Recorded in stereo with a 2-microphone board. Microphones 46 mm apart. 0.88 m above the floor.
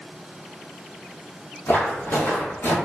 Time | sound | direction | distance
1.7 | footsteps | 50° left (ahead or behind) | 1.3 m